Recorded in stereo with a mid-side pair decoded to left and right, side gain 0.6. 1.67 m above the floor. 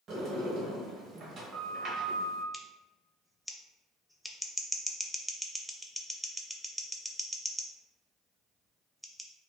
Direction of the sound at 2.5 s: Straight ahead.